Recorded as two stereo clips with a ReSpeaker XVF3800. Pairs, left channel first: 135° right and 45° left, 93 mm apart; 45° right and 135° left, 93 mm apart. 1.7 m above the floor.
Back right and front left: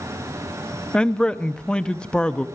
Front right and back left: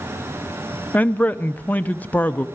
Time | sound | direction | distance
0.9 | a man speaking | 75° right | 0.6 m